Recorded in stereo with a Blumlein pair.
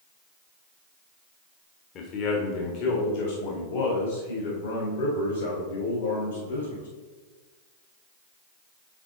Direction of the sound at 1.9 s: 35° left.